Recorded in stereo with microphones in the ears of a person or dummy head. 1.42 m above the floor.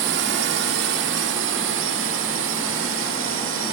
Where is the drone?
60° right (ahead or behind); by 3.7 s 70° right (ahead or behind).